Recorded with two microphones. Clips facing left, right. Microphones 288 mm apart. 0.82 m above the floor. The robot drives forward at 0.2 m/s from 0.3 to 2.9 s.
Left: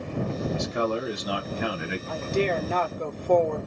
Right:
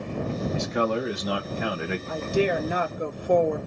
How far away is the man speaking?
About 3.5 m.